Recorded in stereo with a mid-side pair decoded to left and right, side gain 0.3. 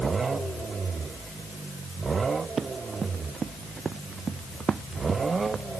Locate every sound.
2.6 s running footsteps: 60° right